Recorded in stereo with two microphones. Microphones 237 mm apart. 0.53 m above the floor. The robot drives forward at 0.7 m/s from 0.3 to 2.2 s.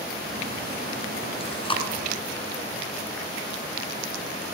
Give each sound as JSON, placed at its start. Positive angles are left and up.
{"t": 1.4, "sound": "chewing", "side_deg": 20, "distance_m": 2.5}